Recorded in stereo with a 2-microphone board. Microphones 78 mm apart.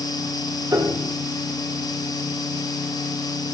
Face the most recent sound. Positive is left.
turn(degrees=-60)  # may be behind; listen again after turning